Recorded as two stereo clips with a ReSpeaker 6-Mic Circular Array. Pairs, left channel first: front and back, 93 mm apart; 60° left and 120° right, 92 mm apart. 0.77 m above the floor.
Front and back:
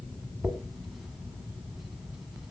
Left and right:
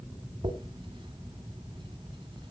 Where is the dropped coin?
90° right, 1.8 m.